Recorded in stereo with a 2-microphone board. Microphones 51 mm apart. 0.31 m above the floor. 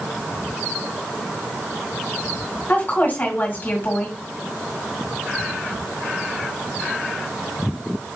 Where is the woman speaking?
40° left (ahead or behind), 2.0 m.